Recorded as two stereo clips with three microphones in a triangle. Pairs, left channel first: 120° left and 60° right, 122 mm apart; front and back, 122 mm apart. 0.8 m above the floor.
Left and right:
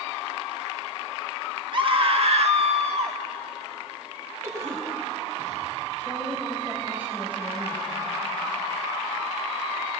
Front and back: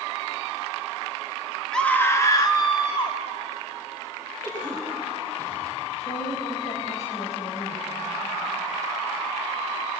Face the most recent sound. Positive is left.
turn(degrees=15)